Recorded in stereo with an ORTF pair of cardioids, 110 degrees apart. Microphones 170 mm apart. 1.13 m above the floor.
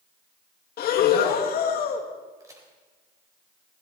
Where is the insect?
No insect in this recording.